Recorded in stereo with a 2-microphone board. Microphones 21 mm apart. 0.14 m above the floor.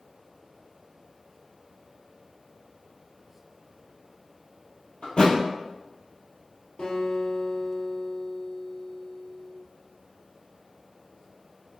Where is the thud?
70° left (ahead or behind), 1.2 m.